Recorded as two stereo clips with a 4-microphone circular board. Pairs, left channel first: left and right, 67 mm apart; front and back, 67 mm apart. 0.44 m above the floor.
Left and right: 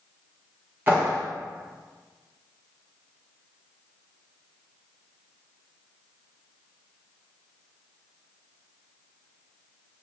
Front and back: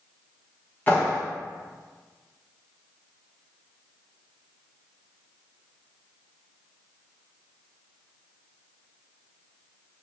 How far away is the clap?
About 1.1 m.